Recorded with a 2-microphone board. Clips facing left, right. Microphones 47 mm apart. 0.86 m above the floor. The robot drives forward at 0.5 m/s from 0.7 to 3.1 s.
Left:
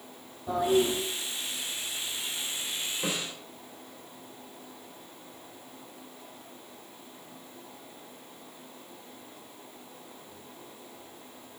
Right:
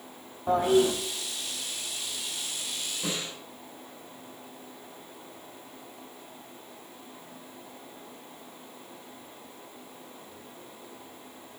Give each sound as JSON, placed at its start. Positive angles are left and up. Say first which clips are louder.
{"t": 0.5, "sound": "a toilet flushing", "louder": "right 3 dB", "side_deg": -55, "distance_m": 1.4}
{"t": 3.0, "sound": "a snare drum", "louder": "even", "side_deg": 25, "distance_m": 3.0}